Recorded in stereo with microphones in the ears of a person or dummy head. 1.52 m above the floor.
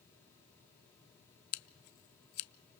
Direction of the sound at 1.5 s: 55° left (ahead or behind).